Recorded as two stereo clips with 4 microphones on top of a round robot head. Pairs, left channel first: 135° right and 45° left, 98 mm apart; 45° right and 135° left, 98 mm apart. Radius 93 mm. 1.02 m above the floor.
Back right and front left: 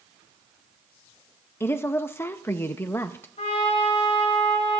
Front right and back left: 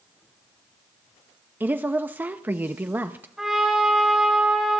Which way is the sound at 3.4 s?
140° right.